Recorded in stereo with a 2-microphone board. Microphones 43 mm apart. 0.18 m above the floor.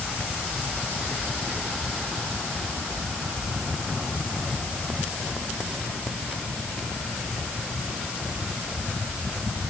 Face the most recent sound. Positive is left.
No sound to turn to.